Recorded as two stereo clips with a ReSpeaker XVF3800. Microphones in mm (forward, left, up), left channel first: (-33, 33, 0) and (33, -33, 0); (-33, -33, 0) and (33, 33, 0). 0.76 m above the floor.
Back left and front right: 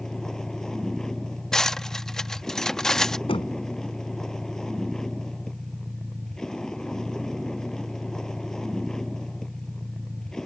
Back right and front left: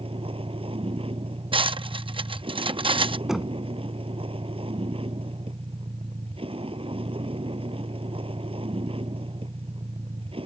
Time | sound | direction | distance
0.0 | a vehicle | 50° left | ?
1.5 | cutlery clinking | 50° left | ?
3.3 | knocking | 130° left | ?